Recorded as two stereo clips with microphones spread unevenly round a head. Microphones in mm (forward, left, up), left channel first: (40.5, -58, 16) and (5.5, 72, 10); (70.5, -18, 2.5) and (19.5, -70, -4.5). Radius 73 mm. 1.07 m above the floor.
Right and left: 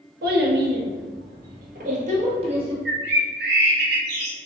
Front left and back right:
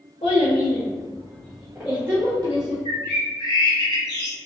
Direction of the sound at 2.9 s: 110° left.